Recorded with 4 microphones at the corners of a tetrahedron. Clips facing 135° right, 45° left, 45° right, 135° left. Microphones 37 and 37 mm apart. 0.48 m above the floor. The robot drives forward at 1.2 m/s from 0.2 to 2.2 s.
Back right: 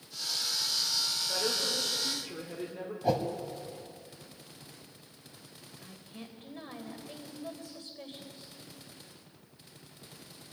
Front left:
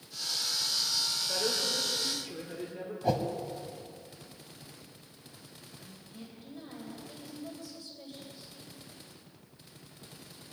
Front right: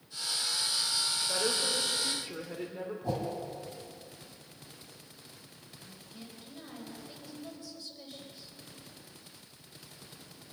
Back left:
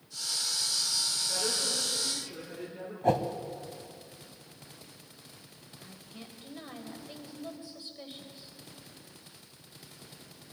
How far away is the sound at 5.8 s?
About 2.5 m.